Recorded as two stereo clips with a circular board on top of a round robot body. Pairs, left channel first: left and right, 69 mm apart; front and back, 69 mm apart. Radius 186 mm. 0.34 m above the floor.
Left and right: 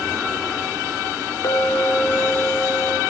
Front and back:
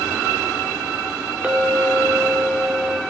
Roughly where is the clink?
Left.